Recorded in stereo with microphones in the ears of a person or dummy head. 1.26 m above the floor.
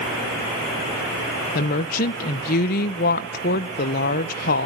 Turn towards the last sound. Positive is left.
turn(degrees=50)  # may be behind; listen again after turning